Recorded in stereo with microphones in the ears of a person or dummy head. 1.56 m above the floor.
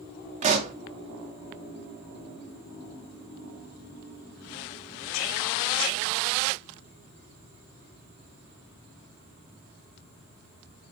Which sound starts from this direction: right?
A pop, at 0.4 s.